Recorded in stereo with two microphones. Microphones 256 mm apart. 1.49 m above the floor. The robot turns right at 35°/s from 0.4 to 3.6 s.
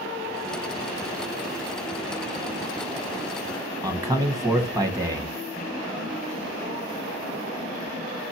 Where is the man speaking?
15° right (ahead or behind), 1.2 m.